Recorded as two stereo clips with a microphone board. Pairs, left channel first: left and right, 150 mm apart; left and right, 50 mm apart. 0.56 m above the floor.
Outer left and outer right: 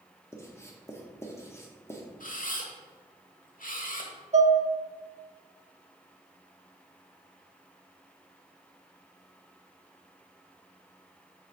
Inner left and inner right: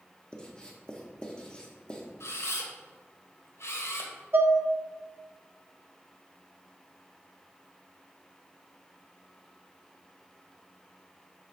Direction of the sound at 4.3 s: 45° right (ahead or behind).